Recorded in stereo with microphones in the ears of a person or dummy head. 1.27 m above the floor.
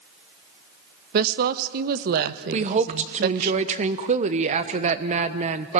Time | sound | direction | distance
1.1 | a woman speaking | 50° right (ahead or behind) | 0.9 m
2.5 | a woman speaking | 35° right (ahead or behind) | 1.1 m